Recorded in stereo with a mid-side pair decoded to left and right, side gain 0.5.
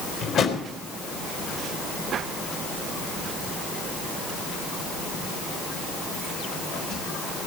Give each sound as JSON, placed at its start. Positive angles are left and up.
{"t": 0.2, "sound": "a drawer", "azimuth_deg": 55, "distance_m": 4.0}